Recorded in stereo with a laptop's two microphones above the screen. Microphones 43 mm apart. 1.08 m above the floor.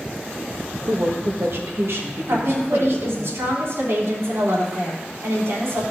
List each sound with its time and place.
0.9 s a woman speaking: 50° right (ahead or behind), 1.6 m; by 3.3 s 75° right (ahead or behind), 2 m
2.3 s a woman speaking: 75° right (ahead or behind), 3 m